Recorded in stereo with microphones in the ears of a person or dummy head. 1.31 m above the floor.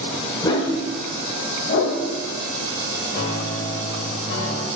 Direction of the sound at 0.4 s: 20° left (ahead or behind).